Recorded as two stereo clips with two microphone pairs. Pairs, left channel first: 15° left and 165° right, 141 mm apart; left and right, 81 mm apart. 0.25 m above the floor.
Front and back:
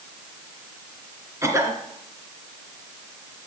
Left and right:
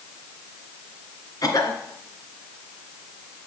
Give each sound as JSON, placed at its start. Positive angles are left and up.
{"t": 1.4, "sound": "a cough", "azimuth_deg": 130, "distance_m": 3.0}